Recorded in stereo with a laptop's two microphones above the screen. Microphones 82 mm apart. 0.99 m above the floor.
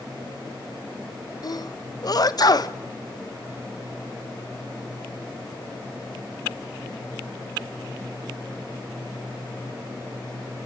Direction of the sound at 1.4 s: 50° left (ahead or behind).